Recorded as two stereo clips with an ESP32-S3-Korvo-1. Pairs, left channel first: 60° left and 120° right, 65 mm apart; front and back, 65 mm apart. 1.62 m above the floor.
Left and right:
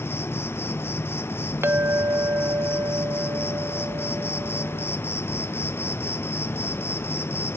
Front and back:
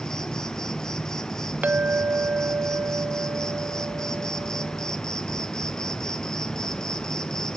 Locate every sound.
0.0 s an insect: 75° left, 0.8 m
1.6 s a clink: 130° right, 0.6 m